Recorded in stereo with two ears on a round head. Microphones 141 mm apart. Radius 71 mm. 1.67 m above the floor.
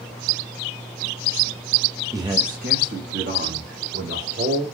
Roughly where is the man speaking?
Centre.